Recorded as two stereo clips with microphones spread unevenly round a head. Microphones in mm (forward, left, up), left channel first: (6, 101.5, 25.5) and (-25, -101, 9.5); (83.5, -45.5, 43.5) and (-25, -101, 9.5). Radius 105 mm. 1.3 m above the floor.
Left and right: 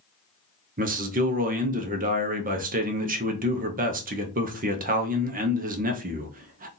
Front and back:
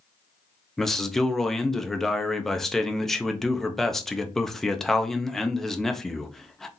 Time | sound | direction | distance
0.8 | a man speaking | 75° right | 0.7 m